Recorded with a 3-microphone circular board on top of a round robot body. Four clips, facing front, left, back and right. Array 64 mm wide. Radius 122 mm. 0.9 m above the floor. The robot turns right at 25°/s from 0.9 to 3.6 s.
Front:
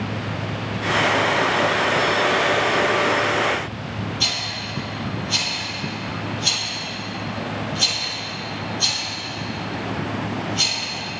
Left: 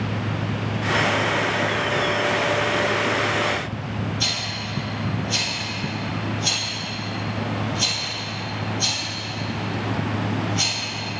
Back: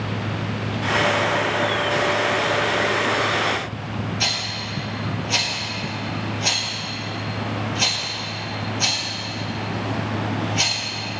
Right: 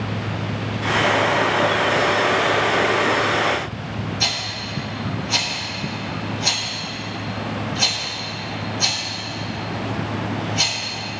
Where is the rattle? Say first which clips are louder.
Right 2 dB, back 1 dB; 150° right, 4.5 m.